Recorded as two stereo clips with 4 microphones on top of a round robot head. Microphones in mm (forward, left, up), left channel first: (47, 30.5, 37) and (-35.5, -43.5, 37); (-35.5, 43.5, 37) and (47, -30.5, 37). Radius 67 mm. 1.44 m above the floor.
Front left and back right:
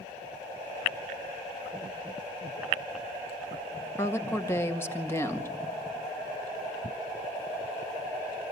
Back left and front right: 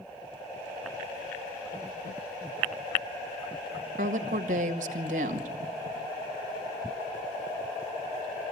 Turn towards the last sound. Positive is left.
turn(degrees=-30)